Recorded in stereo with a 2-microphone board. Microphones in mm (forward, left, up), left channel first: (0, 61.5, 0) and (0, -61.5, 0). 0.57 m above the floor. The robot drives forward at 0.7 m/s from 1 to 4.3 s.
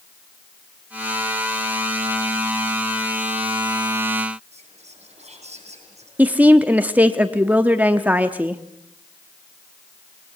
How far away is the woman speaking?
About 0.8 m.